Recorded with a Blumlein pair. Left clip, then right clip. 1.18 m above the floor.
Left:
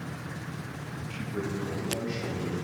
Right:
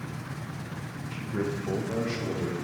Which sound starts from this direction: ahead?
A man speaking, at 1.1 s.